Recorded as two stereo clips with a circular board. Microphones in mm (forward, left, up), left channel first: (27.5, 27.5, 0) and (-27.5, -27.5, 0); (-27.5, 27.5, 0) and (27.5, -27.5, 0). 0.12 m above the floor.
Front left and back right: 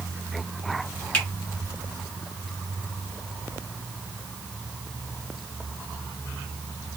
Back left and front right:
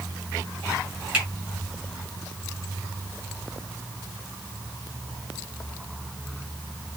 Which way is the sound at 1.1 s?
5° right.